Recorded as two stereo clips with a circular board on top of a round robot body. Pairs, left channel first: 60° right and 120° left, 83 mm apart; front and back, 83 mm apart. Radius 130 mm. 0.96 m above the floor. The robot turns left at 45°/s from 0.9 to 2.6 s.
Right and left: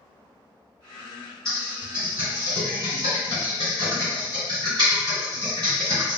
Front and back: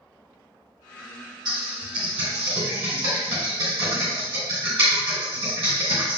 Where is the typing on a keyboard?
145° right, 1.7 m; by 6.2 s 160° left, 1.7 m.